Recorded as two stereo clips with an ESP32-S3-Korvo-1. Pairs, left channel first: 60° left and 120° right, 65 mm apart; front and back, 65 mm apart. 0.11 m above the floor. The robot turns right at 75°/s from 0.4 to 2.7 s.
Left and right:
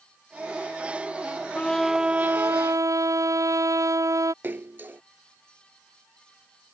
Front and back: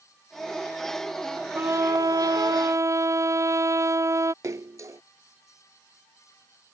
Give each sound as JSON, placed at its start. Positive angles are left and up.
{"t": 1.6, "sound": "a trumpet", "azimuth_deg": 125}
{"t": 4.4, "sound": "a splash", "azimuth_deg": -170}